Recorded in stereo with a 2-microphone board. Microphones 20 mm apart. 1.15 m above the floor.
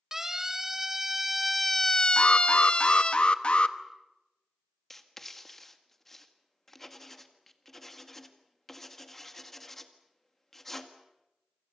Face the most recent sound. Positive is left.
turn(degrees=10)  # may be behind; listen again after turning